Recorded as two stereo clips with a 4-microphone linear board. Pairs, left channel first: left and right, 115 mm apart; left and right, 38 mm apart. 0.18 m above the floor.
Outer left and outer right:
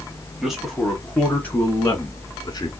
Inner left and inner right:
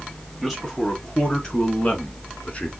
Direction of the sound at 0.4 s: 5° right (ahead or behind).